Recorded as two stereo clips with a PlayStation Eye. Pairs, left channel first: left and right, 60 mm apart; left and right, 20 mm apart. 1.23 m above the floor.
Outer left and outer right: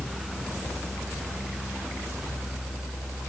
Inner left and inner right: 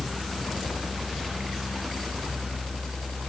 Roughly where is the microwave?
I don't hear a microwave.